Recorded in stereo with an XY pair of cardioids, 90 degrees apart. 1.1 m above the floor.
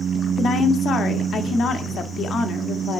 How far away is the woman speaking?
About 1.8 m.